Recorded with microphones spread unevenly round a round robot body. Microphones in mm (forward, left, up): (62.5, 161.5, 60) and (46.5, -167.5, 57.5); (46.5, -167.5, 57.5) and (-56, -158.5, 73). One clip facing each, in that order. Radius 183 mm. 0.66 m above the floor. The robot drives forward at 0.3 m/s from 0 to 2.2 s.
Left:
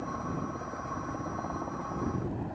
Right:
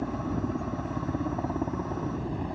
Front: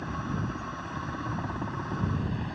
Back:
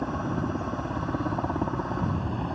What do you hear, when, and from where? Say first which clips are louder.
0.0 s a helicopter: right 6 dB, back 5 dB; 135° right